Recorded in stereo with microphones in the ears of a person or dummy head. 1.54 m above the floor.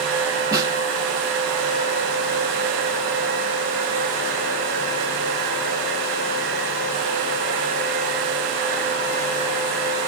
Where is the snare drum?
15° right (ahead or behind), 0.6 m.